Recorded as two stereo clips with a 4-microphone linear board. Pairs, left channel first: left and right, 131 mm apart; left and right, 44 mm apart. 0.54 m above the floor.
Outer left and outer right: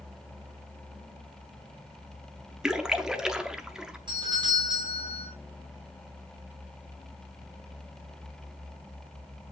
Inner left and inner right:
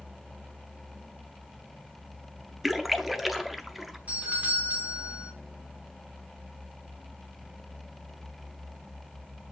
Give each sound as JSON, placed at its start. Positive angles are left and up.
{"t": 2.6, "sound": "a splash", "side_deg": -5, "distance_m": 0.7}
{"t": 4.1, "sound": "a doorbell", "side_deg": -35, "distance_m": 2.5}